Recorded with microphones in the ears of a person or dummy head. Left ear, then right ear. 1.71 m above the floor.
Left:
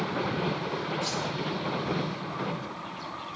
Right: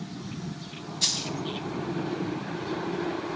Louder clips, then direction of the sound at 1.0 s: Right 4 dB; 60° right (ahead or behind).